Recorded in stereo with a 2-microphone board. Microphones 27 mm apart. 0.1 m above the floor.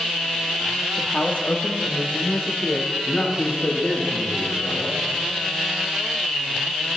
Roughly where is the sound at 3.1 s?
Left.